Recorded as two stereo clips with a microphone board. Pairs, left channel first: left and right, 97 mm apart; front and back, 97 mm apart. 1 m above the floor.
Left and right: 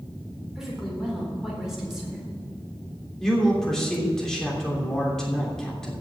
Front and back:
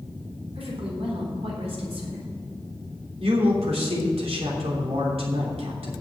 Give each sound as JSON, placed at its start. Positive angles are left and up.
{"t": 0.6, "sound": "a woman speaking", "azimuth_deg": -175, "distance_m": 4.0}
{"t": 3.2, "sound": "a man speaking", "azimuth_deg": 175, "distance_m": 3.0}